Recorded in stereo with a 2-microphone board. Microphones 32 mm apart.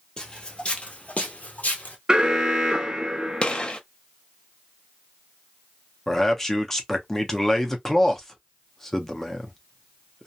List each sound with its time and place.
0.2 s footsteps: 30° left (ahead or behind), 1.0 m; by 2.0 s 60° left (ahead or behind), 1.2 m
2.1 s an alarm: 25° right (ahead or behind), 0.6 m
3.4 s a gunshot: 35° left (ahead or behind), 0.5 m
6.1 s a man speaking: 15° left (ahead or behind), 0.7 m